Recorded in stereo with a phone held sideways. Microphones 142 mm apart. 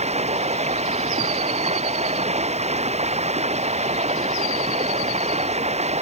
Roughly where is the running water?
Right.